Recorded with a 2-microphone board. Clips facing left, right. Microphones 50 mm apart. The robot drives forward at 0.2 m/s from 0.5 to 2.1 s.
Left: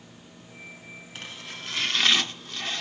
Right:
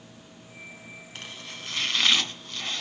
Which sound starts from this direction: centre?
Chopping, at 1.1 s.